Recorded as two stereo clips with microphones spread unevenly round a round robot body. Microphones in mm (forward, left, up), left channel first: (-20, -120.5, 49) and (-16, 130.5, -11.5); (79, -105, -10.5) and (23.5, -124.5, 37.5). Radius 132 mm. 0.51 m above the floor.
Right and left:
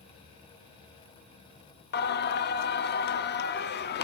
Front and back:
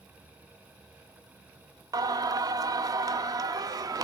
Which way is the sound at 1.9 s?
105° right.